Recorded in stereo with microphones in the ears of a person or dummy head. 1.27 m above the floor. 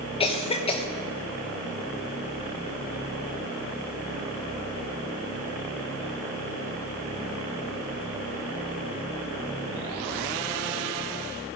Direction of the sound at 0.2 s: 30° left (ahead or behind).